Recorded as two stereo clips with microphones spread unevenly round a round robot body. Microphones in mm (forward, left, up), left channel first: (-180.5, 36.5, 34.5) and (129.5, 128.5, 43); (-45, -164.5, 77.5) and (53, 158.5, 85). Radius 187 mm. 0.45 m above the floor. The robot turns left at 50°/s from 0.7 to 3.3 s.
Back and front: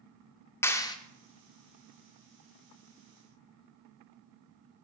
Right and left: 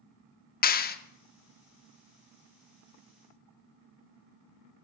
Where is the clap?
95° right, 0.8 m; by 1.0 s 105° right, 0.8 m.